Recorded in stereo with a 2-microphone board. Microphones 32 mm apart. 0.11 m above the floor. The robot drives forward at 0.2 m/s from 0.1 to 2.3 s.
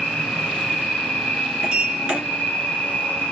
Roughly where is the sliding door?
Right.